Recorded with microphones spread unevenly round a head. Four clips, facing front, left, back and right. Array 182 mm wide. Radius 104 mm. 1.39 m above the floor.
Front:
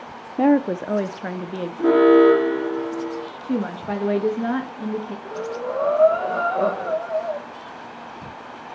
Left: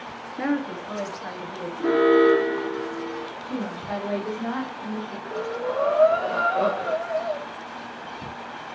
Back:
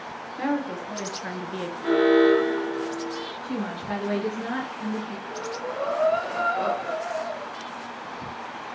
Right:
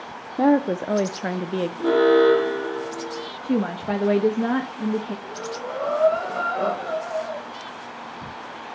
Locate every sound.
0.4 s a woman speaking: 25° right, 0.6 m; by 1.7 s 85° right, 0.9 m
1.8 s an alarm: 5° right, 2.5 m
3.4 s a woman speaking: 65° right, 1.6 m
5.2 s breathing: 25° left, 2 m